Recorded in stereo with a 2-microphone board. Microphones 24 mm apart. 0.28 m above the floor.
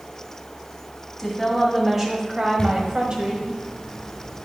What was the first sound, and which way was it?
A woman speaking, 5° left (ahead or behind).